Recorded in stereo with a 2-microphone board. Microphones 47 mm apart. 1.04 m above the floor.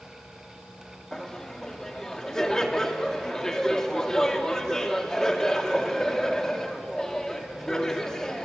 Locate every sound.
1.1 s laughter: 15° left (ahead or behind), 2 m